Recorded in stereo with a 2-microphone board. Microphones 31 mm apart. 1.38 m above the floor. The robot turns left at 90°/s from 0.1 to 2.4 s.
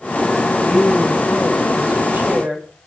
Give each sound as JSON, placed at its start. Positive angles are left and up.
{"t": 0.6, "sound": "a woman speaking", "azimuth_deg": 40, "distance_m": 7.5}